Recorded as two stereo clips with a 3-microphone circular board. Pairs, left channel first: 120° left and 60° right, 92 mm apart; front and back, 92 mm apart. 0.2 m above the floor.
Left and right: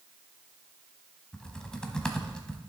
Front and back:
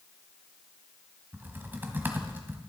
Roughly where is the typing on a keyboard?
Behind.